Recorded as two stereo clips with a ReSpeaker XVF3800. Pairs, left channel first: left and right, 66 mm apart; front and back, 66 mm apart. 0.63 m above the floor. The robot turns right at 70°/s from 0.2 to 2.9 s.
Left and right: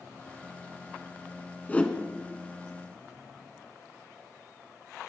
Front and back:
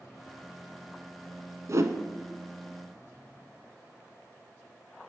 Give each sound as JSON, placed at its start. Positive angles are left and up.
{"t": 1.7, "sound": "a whoosh", "azimuth_deg": 150, "distance_m": 0.9}